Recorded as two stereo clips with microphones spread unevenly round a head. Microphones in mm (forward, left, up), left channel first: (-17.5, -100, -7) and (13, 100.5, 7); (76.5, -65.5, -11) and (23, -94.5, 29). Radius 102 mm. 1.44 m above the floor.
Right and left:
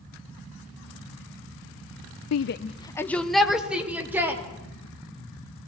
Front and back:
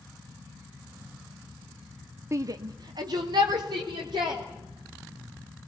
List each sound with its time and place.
2.3 s a shout: 115° right, 0.6 m; by 4.4 s 160° left, 3 m